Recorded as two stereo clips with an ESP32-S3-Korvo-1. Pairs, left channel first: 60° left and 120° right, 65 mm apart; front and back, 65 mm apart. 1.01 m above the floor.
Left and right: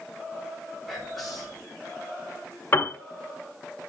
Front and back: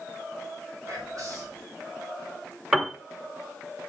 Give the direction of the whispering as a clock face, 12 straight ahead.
7 o'clock.